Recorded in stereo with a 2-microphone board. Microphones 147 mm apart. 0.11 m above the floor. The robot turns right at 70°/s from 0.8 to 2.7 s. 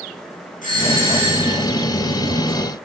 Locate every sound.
0.6 s a doorbell: 65° left, 9 m; by 1.6 s 120° left, 9 m